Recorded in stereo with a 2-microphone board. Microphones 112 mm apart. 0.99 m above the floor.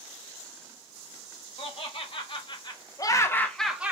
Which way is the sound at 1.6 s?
55° left (ahead or behind).